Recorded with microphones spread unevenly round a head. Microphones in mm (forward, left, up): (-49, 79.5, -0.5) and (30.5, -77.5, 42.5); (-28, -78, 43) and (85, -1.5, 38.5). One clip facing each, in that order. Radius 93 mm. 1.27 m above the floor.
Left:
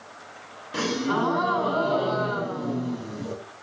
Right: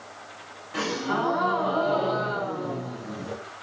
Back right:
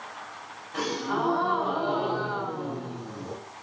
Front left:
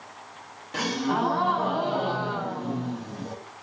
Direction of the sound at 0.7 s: 70° left.